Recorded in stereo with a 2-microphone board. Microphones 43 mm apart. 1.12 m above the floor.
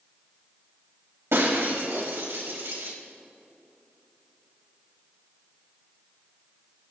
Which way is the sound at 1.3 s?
80° right.